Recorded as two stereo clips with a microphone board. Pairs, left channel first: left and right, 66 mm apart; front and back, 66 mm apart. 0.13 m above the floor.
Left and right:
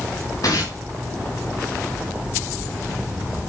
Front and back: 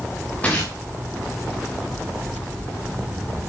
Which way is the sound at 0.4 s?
65° left.